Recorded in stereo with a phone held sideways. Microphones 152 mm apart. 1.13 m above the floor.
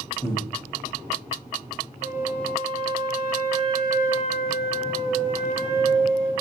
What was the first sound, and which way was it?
Breathing, 25° left (ahead or behind).